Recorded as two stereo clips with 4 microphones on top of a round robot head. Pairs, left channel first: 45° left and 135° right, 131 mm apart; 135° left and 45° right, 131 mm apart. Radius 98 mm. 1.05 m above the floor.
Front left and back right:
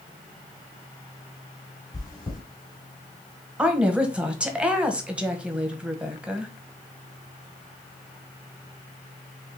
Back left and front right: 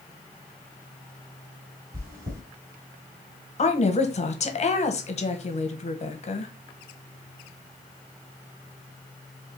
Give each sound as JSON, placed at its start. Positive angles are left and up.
{"t": 1.9, "sound": "chewing", "azimuth_deg": -25, "distance_m": 2.5}
{"t": 3.6, "sound": "a woman speaking", "azimuth_deg": 145, "distance_m": 1.2}